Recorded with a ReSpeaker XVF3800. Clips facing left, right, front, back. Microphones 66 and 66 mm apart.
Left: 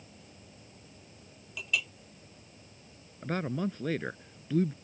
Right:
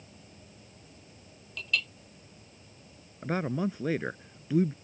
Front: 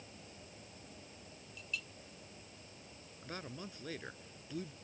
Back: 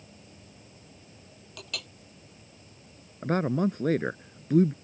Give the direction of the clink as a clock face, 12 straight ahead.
6 o'clock.